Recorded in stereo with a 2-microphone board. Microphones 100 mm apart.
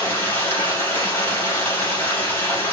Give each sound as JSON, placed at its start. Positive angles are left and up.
{"t": 0.0, "sound": "running water", "side_deg": 20, "distance_m": 4.0}